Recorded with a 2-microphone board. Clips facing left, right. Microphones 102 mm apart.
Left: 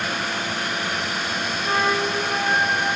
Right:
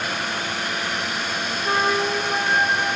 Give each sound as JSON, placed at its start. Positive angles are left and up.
{"t": 1.6, "sound": "a flute", "side_deg": -10, "distance_m": 4.0}